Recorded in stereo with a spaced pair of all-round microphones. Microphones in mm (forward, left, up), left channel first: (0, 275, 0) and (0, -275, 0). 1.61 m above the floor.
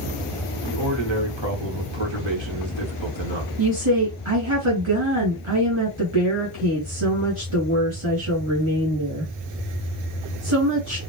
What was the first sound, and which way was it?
A man speaking, 50° right (ahead or behind).